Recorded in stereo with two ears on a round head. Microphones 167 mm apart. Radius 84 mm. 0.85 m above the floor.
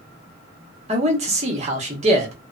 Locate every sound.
0.9 s a man speaking: 35° right (ahead or behind), 1.1 m